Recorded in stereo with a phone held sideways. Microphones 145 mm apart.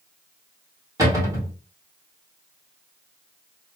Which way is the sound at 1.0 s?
20° right (ahead or behind).